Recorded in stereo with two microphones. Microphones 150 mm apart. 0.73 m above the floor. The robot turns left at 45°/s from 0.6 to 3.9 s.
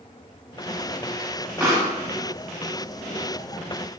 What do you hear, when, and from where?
1.6 s a pop: 10° right (ahead or behind), 1.2 m; by 1.9 s 25° right (ahead or behind), 1.2 m